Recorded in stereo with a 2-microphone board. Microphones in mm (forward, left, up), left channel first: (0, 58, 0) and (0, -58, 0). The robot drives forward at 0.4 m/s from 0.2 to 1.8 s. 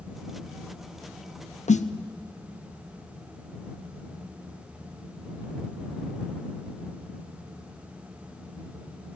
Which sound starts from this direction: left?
A snare drum, at 1.7 s.